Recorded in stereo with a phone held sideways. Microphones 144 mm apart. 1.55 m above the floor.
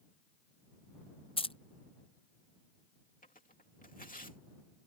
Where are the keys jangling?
40° left (ahead or behind).